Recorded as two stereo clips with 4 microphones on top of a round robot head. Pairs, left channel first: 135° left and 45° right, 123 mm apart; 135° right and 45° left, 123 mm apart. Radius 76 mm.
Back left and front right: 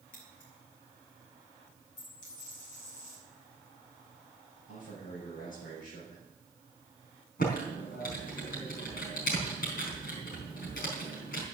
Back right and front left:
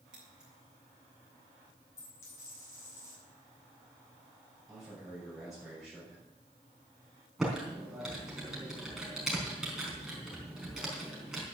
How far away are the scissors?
About 7.5 m.